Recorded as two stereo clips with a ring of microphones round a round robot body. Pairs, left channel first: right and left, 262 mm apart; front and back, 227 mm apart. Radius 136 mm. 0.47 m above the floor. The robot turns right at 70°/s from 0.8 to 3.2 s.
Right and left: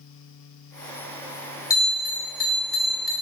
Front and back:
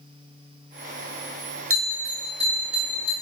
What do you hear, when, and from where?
1.7 s a bell: 165° right, 2.5 m; by 3.1 s 65° right, 2.5 m